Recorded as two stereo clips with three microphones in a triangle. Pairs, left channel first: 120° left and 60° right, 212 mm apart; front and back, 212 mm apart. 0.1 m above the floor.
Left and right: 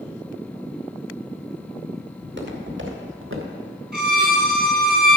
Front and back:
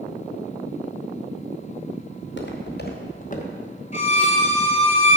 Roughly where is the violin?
Ahead right.